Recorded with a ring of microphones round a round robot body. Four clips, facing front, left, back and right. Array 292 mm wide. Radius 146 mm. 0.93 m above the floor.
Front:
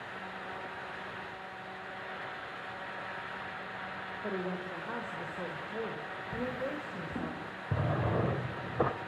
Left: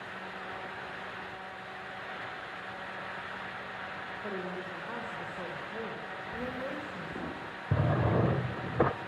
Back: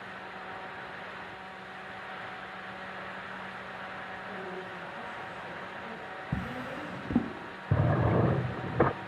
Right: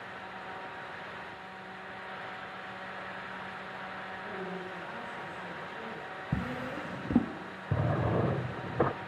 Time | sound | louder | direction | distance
4.2 | a woman speaking | left 3 dB, front 7 dB | 20° left | 5 m
6.3 | a drawer | right 1 dB, front 2 dB | 125° right | 1.8 m
7.7 | a drawer | left 1 dB, back 5 dB | 165° left | 0.7 m